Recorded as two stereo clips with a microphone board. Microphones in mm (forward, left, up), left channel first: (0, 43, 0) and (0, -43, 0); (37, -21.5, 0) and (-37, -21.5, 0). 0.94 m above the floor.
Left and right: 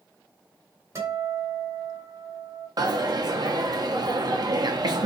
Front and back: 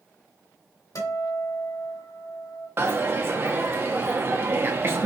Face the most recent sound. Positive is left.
turn(degrees=-125)